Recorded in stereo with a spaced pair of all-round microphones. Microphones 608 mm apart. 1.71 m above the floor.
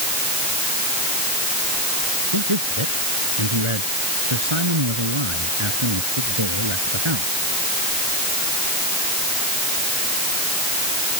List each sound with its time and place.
2.3 s a man speaking: 50° right (ahead or behind); by 7.4 s 45° right (ahead or behind)